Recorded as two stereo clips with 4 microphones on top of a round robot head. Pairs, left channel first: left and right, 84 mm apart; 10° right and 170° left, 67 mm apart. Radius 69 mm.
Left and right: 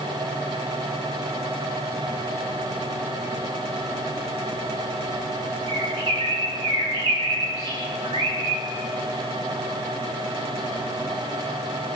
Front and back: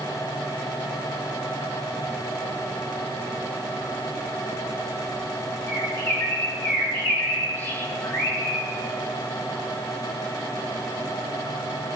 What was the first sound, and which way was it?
A bird, 65° right.